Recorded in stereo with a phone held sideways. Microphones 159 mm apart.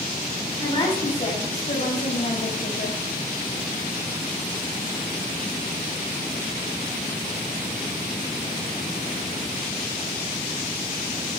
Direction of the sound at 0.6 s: 30° left (ahead or behind).